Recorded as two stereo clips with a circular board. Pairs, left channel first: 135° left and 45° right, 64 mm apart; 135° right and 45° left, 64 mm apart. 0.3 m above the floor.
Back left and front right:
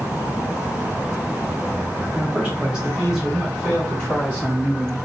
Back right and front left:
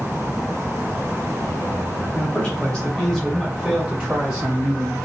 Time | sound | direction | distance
2.1 | a man speaking | 85° right | 1.8 m